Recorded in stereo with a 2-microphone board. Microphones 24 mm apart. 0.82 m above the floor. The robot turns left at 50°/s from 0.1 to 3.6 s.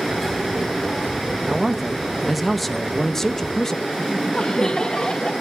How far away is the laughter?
About 1.2 m.